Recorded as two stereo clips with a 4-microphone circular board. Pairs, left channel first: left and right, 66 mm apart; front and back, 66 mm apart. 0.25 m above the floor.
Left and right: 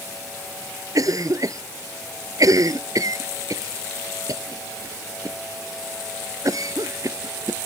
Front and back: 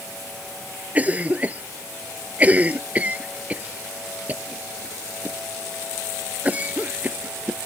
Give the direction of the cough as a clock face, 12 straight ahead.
4 o'clock.